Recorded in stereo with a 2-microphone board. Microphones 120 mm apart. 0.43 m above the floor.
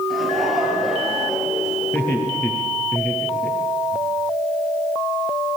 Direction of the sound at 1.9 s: 10° left (ahead or behind).